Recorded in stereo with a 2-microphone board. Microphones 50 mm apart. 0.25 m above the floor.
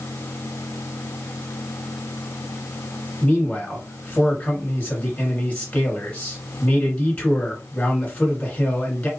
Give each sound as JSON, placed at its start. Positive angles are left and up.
{"t": 3.2, "sound": "a man speaking", "side_deg": 30, "distance_m": 2.5}